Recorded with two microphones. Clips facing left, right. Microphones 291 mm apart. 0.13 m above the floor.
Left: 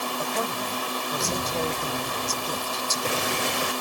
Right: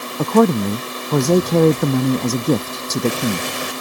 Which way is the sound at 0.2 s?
70° right (ahead or behind).